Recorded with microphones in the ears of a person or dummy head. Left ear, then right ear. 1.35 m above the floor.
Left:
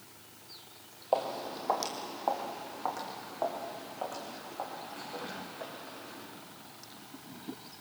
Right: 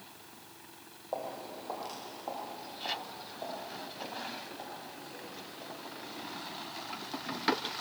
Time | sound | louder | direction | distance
1.1 | footsteps | left 7 dB | 50° left (ahead or behind) | 2 m